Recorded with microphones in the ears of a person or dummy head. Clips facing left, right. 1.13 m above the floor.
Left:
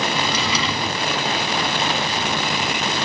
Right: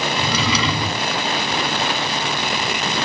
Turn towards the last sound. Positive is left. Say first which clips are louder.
# right 2 dB
turn(degrees=-65)  # may be behind; listen again after turning